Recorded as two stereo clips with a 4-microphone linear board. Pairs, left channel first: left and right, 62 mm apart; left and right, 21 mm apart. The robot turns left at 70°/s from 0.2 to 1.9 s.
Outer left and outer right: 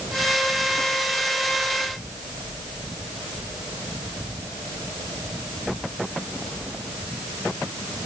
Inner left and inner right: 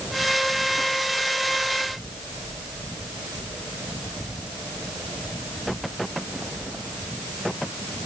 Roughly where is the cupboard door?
I don't hear a cupboard door.